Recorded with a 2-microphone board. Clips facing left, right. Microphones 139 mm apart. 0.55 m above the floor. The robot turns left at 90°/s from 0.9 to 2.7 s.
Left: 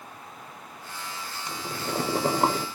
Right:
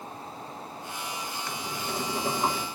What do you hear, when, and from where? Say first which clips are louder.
1.5 s boiling: left 5 dB; 160° left, 0.6 m; by 2.7 s 50° left, 0.6 m